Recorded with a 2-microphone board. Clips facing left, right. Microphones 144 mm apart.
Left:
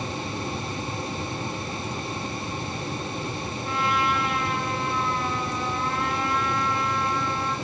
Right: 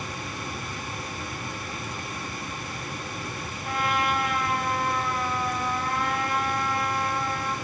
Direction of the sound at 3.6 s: 50° right (ahead or behind).